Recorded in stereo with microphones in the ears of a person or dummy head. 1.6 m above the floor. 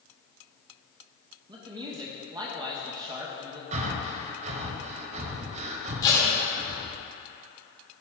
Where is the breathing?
40° right (ahead or behind), 0.8 m.